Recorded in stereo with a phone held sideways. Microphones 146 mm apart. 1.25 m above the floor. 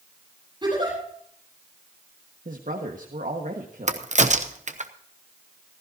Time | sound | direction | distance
0.6 | a giggle | 30° right (ahead or behind) | 8.5 m
2.5 | a woman speaking | 65° right (ahead or behind) | 1.5 m
3.9 | a crack | 55° right (ahead or behind) | 0.8 m